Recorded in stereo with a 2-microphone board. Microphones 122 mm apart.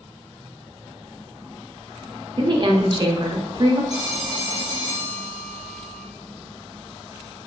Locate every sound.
2.4 s a woman speaking: 40° right (ahead or behind), 0.5 m
3.9 s a phone ringing: 55° left (ahead or behind), 0.6 m